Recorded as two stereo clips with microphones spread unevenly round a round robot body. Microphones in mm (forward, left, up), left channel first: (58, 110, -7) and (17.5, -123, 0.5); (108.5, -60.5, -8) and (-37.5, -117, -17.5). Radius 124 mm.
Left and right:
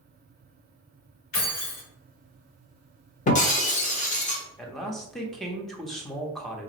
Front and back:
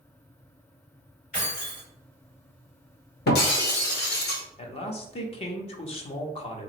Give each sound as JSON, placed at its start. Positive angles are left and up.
{"t": 1.3, "sound": "keys jangling", "azimuth_deg": 80, "distance_m": 1.5}
{"t": 3.3, "sound": "breaking glass", "azimuth_deg": 25, "distance_m": 0.9}
{"t": 4.6, "sound": "a man speaking", "azimuth_deg": -5, "distance_m": 0.7}